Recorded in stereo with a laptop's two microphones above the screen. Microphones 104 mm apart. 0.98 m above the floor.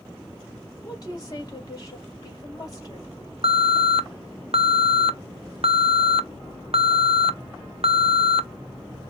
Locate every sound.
0.8 s a woman speaking: 35° left (ahead or behind), 2.5 m
3.4 s an alarm: 65° right (ahead or behind), 0.6 m